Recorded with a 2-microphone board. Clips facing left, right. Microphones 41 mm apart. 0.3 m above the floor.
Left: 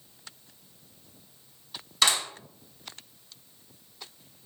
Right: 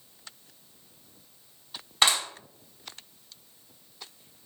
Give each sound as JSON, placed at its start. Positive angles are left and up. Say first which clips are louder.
{"t": 2.0, "sound": "a clap", "louder": "right 1 dB", "side_deg": -35, "distance_m": 1.9}